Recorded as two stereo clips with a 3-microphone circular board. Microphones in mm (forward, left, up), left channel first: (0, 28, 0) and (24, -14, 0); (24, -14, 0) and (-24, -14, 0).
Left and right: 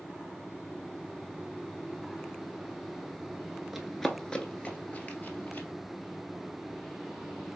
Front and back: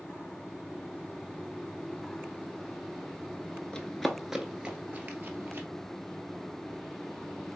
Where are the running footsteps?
20° left, 0.7 m; by 5.7 s 150° left, 1.3 m.